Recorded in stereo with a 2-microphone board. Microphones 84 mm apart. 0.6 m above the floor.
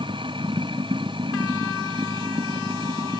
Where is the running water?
80° right.